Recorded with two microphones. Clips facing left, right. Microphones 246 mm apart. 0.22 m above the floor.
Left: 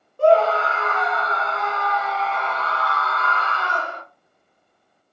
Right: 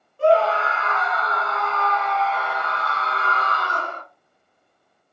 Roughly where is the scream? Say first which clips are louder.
Left 2 dB; left.